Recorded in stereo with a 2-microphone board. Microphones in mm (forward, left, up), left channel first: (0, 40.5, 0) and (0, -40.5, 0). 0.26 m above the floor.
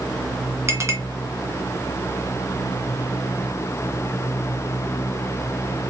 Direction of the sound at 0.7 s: 40° right (ahead or behind).